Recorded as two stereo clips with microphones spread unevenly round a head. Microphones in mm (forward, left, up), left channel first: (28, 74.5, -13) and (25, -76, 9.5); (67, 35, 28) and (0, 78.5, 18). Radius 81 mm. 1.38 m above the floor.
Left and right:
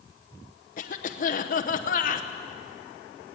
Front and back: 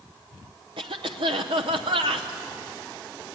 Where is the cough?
135° left, 0.9 m.